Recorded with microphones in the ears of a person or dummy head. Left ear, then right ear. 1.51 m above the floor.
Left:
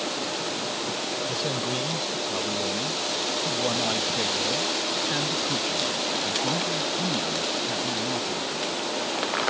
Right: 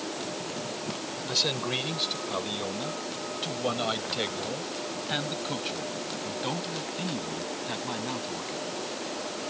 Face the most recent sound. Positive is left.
turn(degrees=-25)  # may be behind; listen again after turning